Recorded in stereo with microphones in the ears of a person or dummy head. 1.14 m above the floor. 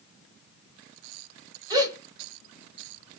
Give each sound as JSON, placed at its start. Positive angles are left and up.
{"t": 1.7, "sound": "a gasp", "side_deg": -20, "distance_m": 1.7}